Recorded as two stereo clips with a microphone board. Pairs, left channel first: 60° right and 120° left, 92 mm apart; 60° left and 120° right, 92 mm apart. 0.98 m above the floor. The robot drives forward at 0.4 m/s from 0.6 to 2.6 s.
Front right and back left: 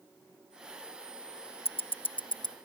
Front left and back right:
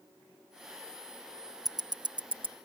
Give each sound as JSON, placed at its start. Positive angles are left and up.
{"t": 1.6, "sound": "ticking", "azimuth_deg": -75}